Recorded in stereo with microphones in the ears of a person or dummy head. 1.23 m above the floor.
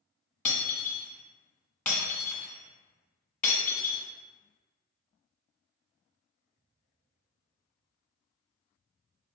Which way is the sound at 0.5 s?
5° left (ahead or behind).